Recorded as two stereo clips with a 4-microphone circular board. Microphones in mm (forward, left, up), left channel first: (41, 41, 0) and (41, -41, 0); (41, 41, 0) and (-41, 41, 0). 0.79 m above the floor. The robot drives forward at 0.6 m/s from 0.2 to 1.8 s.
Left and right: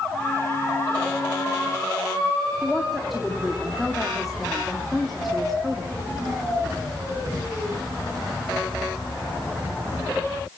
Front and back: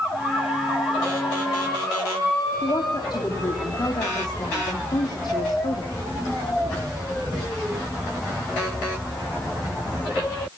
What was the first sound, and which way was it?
A woman speaking, straight ahead.